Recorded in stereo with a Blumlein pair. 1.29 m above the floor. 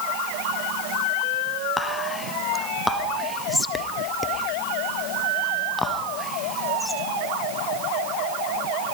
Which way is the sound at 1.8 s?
5° left.